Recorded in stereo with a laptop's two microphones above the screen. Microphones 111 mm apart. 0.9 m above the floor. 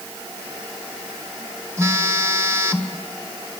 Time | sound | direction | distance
1.8 | a phone buzzing | 25° right (ahead or behind) | 1.5 m